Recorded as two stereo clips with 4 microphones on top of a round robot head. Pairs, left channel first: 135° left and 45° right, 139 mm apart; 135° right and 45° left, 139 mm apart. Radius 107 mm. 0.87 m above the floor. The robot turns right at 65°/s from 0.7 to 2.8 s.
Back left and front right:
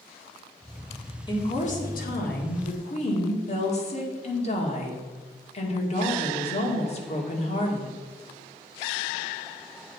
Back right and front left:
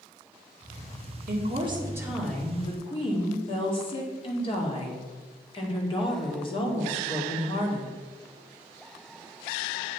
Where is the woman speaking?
75° left, 2 m; by 7.9 s 175° left, 2 m.